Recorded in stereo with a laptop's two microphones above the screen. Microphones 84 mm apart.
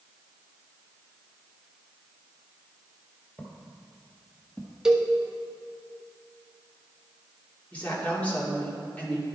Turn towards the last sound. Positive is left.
turn(degrees=20)  # may be behind; listen again after turning